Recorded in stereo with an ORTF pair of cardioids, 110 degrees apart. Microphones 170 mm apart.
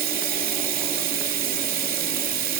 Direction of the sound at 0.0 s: 70° right.